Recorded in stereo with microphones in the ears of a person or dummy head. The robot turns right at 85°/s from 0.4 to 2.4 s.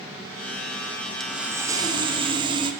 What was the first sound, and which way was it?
Sawing, centre (ahead or behind).